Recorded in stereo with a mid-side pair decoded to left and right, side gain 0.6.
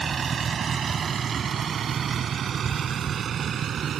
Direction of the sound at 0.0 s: 30° right.